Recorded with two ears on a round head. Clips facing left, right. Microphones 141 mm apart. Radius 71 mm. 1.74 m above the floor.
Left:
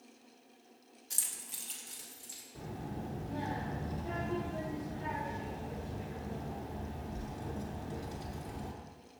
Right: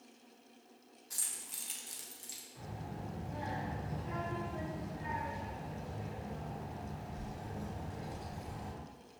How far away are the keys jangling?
About 0.6 m.